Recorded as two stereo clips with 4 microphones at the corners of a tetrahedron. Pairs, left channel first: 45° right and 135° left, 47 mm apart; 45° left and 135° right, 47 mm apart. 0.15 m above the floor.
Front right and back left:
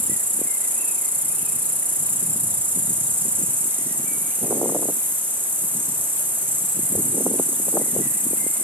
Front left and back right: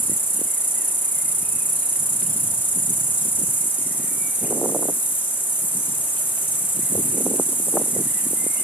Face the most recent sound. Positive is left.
turn(degrees=95)